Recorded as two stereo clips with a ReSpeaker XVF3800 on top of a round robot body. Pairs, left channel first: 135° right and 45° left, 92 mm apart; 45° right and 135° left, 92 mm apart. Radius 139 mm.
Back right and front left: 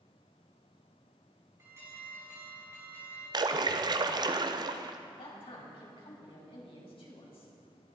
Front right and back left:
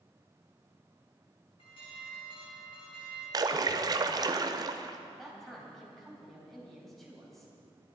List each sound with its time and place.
1.6 s an alarm: 20° right, 5 m
3.3 s a splash: 85° left, 0.7 m
5.1 s a man speaking: 135° right, 4 m